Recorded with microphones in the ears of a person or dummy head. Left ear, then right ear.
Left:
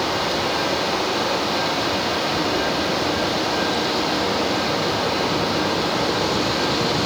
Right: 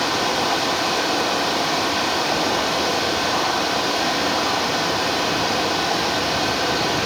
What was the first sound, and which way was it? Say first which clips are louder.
Running water: right 1 dB; 55° right (ahead or behind).